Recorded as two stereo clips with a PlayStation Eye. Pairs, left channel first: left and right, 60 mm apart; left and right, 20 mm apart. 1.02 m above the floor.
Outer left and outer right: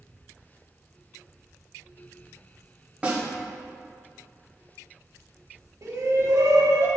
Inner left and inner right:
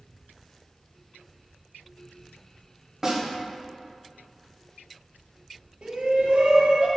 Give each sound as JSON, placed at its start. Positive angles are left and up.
{"t": 3.0, "sound": "a snare drum", "side_deg": -20, "distance_m": 1.7}
{"t": 5.8, "sound": "a shout", "side_deg": -70, "distance_m": 1.5}